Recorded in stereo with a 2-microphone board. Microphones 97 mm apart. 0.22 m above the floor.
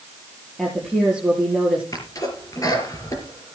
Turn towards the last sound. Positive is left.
turn(degrees=35)  # may be behind; listen again after turning